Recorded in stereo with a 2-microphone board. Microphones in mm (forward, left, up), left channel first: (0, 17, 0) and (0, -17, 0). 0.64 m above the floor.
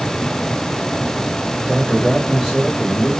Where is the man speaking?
30° right (ahead or behind), 2 m; by 3.1 s 10° left (ahead or behind), 2 m.